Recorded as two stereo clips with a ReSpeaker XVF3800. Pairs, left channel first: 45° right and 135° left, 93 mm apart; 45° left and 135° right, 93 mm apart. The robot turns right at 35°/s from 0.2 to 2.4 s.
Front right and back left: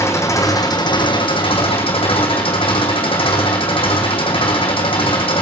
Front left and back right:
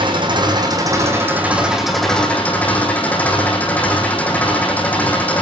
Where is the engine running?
105° right, 4 m; by 5.4 s 30° right, 4 m.